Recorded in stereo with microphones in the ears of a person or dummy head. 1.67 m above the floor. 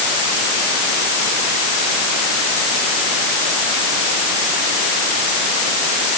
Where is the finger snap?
No finger snap in this recording.